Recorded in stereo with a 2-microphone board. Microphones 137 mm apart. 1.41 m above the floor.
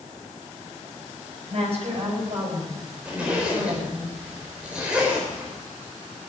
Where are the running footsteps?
I don't hear running footsteps.